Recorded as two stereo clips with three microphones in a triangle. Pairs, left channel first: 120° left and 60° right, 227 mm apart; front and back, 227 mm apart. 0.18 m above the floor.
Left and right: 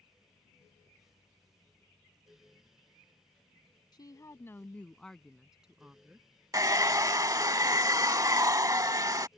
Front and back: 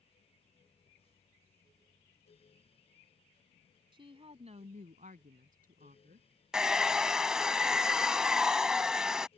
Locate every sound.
3.9 s a woman speaking: 155° left; by 6.3 s 140° right
6.5 s a hair dryer: 100° right